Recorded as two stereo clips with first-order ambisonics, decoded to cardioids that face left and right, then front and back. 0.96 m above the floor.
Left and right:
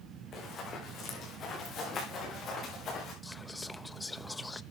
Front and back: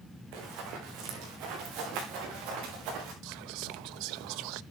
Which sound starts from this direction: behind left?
Running footsteps, at 0.3 s.